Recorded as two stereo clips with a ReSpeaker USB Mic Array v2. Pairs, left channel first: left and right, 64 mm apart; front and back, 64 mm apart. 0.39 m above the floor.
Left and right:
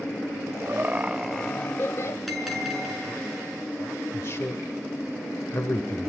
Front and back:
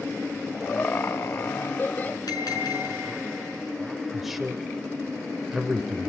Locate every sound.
0.7 s laughter: 55° right, 1.3 m; by 2.2 s 60° left, 1.6 m
2.3 s a bell: straight ahead, 5.5 m
4.1 s a man speaking: 95° left, 1.1 m